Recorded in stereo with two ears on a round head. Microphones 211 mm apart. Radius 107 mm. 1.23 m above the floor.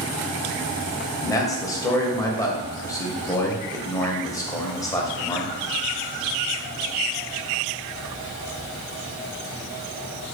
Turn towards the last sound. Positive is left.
turn(degrees=15)  # may be behind; listen again after turning